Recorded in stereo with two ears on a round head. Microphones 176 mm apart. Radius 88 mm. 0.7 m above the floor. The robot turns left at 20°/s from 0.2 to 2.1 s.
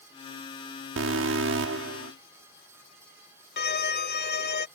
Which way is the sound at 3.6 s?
55° left (ahead or behind).